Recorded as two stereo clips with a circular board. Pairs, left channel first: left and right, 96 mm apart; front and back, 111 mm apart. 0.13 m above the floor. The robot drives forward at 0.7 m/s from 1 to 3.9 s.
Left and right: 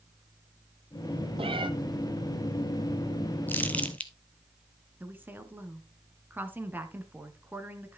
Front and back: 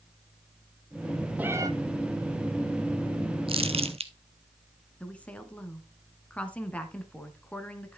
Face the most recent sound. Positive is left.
turn(degrees=-60)